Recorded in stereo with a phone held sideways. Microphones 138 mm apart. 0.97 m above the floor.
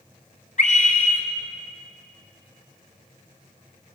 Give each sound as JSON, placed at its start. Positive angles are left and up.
{"t": 0.6, "sound": "a scream", "side_deg": 60, "distance_m": 3.5}